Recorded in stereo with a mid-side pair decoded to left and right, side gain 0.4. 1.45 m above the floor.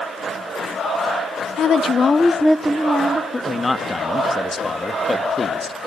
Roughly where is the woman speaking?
Left.